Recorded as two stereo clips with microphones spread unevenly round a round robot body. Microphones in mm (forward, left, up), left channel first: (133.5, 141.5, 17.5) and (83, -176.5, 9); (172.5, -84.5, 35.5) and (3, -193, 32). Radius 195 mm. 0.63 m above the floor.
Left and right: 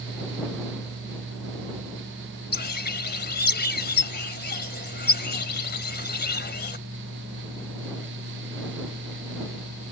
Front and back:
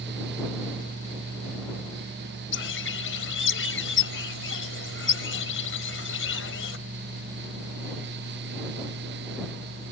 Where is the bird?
20° left.